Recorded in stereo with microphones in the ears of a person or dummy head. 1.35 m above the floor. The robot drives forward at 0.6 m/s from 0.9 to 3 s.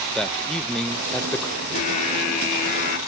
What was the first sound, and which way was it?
A man speaking, 5° left (ahead or behind).